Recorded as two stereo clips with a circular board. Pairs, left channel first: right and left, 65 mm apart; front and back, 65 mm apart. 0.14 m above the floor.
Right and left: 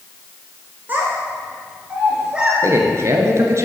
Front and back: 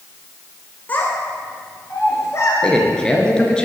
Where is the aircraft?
I don't hear an aircraft.